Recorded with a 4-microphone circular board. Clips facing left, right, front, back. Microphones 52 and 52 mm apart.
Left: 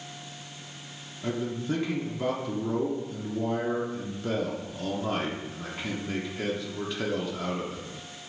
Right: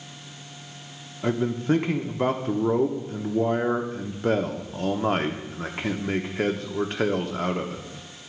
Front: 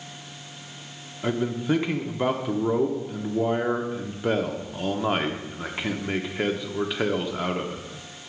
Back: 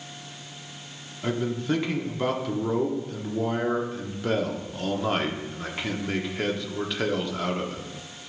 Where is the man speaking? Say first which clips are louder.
Right 6 dB, front 2 dB; 75° right, 0.8 m.